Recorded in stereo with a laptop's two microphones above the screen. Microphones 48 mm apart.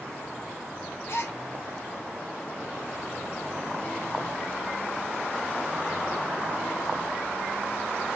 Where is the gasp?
55° left (ahead or behind), 0.7 m.